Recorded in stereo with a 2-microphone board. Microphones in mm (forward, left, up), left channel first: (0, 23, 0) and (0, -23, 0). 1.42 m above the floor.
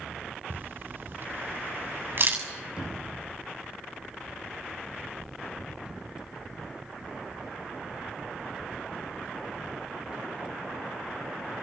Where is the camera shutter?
50° right (ahead or behind), 6.5 m.